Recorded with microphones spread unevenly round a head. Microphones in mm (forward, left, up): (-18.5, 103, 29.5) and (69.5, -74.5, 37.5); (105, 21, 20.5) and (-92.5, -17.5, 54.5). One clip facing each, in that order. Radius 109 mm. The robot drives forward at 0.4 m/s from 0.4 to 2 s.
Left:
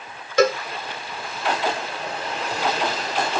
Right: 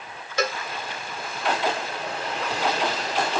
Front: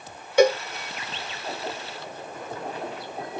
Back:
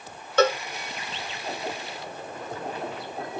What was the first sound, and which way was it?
A cowbell, 90° left.